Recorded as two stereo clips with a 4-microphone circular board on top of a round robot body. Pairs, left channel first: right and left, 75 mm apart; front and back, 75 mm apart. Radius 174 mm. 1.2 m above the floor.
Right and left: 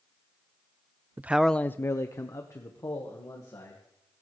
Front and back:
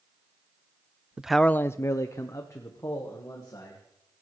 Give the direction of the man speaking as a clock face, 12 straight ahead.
8 o'clock.